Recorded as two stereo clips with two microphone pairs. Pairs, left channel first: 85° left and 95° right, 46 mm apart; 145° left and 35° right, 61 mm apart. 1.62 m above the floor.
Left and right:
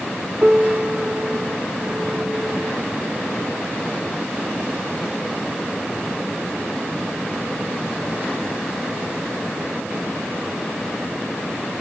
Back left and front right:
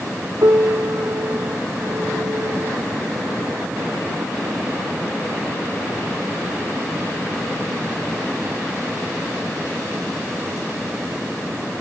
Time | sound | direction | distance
0.4 | a piano | 40° right | 1.1 m